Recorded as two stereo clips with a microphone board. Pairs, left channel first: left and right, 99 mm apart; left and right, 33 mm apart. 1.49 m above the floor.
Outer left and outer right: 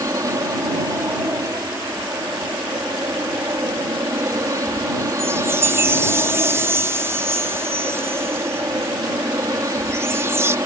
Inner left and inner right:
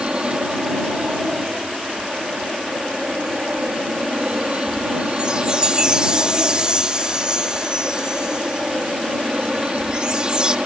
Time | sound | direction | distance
0.0 | an aircraft | 35° right (ahead or behind) | ?
5.2 | a chime | 25° right (ahead or behind) | ?